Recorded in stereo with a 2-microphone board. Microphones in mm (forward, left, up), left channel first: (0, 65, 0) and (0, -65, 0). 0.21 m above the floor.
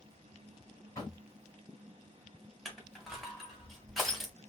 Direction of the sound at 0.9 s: 25° left (ahead or behind).